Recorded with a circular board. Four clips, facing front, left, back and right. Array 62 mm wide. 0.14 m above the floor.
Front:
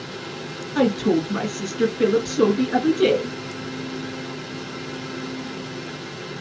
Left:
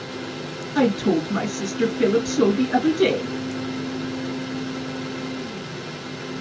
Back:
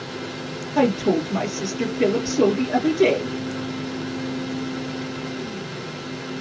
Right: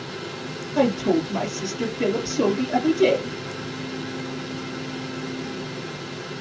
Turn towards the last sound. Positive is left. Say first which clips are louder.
# left 1 dB, even
turn(degrees=50)